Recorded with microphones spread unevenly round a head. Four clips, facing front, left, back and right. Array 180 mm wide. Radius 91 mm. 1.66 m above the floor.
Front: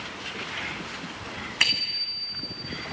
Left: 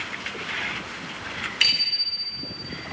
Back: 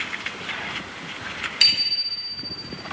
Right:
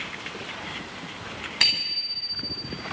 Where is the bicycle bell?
50° right, 9 m.